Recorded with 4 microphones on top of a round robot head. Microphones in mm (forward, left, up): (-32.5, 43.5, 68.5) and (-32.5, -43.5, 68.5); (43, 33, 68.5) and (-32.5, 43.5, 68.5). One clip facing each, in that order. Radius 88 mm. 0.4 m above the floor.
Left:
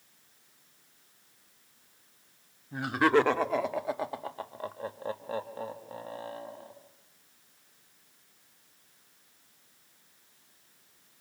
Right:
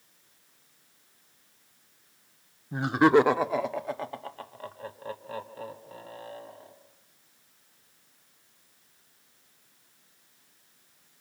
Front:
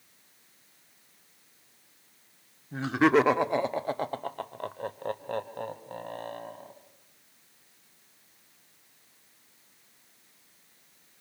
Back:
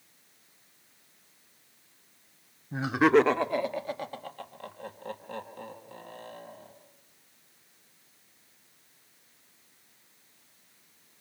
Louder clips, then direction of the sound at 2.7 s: Right 4 dB, back 1 dB; 125° right.